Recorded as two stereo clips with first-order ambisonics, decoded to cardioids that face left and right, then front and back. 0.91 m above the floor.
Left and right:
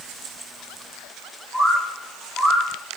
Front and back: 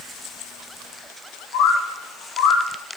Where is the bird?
Straight ahead, 1.7 m.